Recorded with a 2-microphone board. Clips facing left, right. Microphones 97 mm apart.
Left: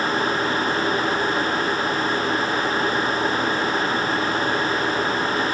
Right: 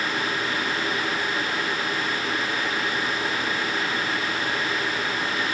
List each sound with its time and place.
Only background noise.